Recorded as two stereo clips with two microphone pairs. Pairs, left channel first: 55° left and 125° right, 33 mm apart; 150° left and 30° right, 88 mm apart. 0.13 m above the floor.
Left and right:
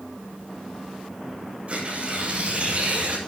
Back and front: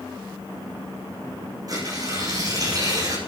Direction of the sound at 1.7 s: 75° right.